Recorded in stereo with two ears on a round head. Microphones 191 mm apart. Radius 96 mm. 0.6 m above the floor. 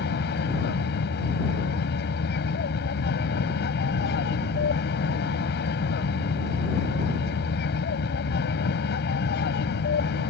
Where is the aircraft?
50° left (ahead or behind).